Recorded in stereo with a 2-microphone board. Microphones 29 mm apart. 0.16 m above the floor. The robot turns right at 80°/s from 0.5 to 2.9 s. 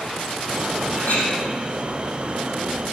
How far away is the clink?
About 3.5 m.